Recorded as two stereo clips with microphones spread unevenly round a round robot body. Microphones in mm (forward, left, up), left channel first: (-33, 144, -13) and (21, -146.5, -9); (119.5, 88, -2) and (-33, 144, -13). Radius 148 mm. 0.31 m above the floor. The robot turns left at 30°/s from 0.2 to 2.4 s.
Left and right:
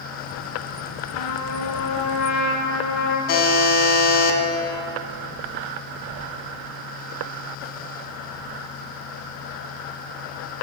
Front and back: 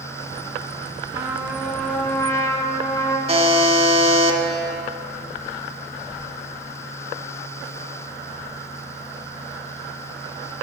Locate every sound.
1.1 s a trumpet: 85° left, 0.9 m; by 3.2 s 50° left, 0.9 m
3.3 s a buzzer: 105° left, 0.9 m